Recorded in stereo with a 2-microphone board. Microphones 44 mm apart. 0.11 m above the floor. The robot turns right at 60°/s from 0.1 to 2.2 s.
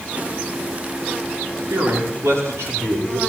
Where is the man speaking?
100° right, 10 m; by 3.2 s 70° right, 10 m.